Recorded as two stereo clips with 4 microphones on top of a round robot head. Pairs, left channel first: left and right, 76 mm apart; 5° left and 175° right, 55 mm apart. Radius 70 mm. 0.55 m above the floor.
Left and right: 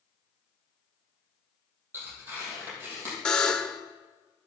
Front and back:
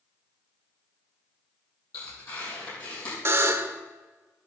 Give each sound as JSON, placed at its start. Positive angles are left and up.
{"t": 1.9, "sound": "tearing paper", "azimuth_deg": -30, "distance_m": 6.5}
{"t": 3.2, "sound": "a buzzer", "azimuth_deg": 165, "distance_m": 1.0}